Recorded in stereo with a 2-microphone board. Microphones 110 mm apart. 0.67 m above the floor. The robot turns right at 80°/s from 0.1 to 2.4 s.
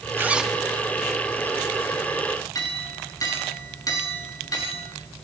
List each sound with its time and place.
0.2 s a zipper: 30° right, 1.3 m; by 0.6 s straight ahead, 1.3 m
2.5 s a clink: 35° left (ahead or behind), 6.5 m